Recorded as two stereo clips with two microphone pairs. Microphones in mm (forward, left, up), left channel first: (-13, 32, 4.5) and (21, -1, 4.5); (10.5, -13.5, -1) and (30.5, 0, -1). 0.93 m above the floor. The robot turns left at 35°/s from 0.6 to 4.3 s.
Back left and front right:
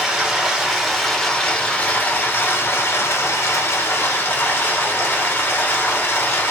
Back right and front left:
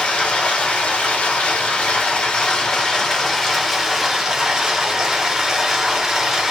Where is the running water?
125° right, 0.8 m; by 6.5 s 105° left, 0.8 m.